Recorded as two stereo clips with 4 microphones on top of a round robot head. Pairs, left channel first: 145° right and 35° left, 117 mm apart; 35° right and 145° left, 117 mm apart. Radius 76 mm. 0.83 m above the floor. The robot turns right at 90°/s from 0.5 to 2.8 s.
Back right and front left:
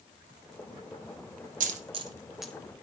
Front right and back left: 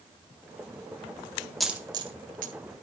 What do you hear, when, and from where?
1.6 s a dropped coin: 50° left, 1.4 m; by 2.5 s 135° left, 1.4 m